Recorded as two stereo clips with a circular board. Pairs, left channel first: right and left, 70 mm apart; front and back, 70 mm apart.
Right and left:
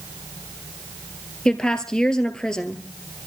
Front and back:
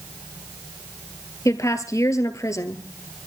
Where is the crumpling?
I don't hear crumpling.